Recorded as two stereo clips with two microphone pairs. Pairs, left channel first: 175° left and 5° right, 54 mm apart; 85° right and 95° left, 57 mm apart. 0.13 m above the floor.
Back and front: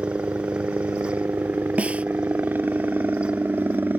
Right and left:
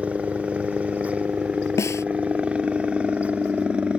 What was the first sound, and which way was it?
A helicopter, 30° left.